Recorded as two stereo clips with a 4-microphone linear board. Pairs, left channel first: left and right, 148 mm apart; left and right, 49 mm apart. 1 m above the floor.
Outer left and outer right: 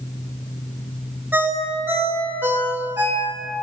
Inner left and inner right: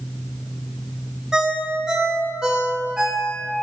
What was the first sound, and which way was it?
A ringtone, 10° right (ahead or behind).